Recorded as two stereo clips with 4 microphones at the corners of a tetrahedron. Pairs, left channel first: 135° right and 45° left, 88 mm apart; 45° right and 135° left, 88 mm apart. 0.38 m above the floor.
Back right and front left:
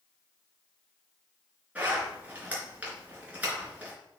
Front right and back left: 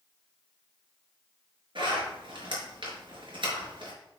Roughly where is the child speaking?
I don't hear a child speaking.